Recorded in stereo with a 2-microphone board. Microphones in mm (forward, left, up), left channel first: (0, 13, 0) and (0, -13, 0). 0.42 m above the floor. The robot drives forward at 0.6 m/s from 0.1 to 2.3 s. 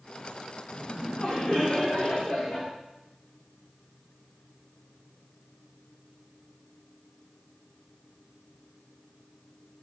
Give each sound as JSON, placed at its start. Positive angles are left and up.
{"t": 0.7, "sound": "laughter", "side_deg": 55, "distance_m": 1.2}